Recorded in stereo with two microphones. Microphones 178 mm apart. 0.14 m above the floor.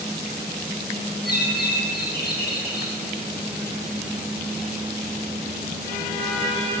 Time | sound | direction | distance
1.2 | a bird | 65° left (ahead or behind) | 3 m